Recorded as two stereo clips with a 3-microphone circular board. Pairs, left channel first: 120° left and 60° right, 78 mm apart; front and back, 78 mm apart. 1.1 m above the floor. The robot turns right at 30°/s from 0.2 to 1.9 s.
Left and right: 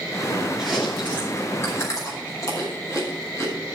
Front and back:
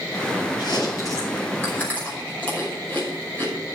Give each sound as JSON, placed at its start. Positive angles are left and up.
{"t": 0.6, "sound": "chewing", "azimuth_deg": 30, "distance_m": 5.5}